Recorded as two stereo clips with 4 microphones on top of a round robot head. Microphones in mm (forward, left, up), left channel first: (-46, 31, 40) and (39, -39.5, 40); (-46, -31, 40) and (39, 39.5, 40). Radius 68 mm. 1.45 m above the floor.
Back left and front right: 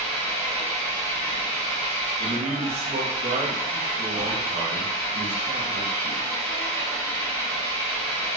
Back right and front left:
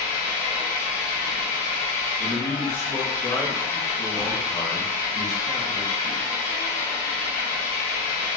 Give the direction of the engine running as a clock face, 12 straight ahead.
5 o'clock.